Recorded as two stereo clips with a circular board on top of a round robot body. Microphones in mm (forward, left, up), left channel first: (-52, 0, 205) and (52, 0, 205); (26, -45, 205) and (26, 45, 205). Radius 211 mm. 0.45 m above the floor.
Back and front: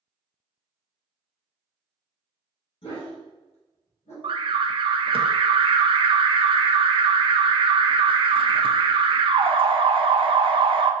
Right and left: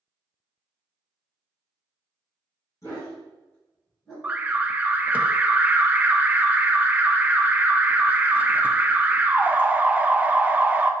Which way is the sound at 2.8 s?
145° right.